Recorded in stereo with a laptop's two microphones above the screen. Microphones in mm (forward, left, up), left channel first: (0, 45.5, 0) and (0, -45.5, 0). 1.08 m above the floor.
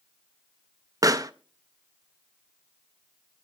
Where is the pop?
40° right (ahead or behind), 0.5 m.